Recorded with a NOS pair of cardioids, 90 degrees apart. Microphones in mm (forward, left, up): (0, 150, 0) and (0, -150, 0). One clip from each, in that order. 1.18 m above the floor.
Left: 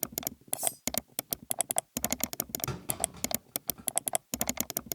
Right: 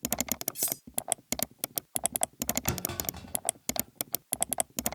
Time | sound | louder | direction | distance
0.6 | cutlery clinking | even | 35° right | 0.9 m
2.7 | a clunk | right 2 dB | 35° right | 2 m